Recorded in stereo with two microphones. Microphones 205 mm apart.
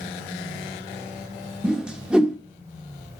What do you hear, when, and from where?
1.6 s a whoosh: 5° right (ahead or behind), 1.1 m